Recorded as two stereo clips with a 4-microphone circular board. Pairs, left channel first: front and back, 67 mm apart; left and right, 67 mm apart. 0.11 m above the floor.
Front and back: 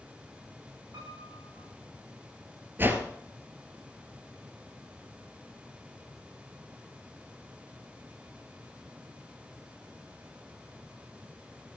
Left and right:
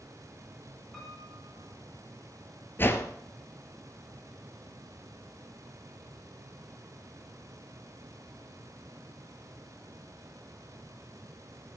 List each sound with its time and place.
0.9 s a piano: straight behind, 7 m
2.8 s a whoosh: 135° left, 1.4 m